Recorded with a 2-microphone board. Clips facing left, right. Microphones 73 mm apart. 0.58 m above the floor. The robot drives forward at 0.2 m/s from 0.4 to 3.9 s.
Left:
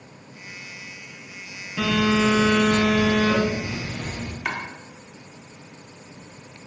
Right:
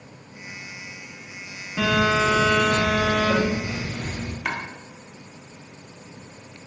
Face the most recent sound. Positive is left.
turn(degrees=0)  # may be behind; listen again after turning